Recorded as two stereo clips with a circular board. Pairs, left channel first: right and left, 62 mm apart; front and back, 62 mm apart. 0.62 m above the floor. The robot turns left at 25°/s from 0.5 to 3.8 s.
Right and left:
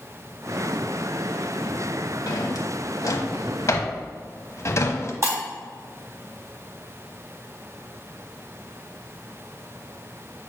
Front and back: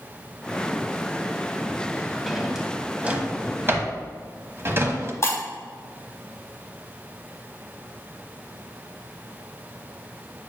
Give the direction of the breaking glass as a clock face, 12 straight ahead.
10 o'clock.